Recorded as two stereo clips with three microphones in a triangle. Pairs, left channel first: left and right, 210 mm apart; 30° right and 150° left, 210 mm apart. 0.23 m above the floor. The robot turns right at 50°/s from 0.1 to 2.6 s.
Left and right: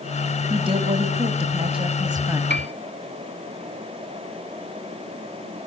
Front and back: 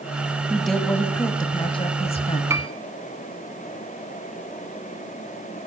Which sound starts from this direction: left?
A piano, at 2.5 s.